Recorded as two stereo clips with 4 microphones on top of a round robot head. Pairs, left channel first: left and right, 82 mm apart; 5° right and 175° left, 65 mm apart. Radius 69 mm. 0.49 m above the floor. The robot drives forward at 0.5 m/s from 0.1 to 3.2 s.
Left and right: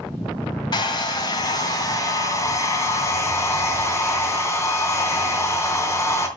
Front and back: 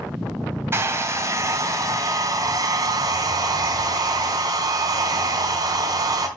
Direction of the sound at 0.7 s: 120° left.